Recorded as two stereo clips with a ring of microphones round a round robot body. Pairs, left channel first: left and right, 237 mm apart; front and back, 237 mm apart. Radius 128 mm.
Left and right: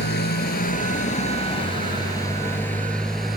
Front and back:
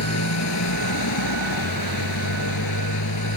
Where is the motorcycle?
35° left; by 3.4 s straight ahead.